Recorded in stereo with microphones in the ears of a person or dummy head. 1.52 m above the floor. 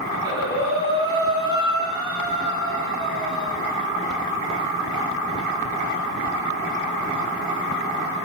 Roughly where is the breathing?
Centre.